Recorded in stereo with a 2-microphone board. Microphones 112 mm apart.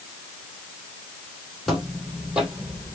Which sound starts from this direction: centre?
Footsteps, at 1.7 s.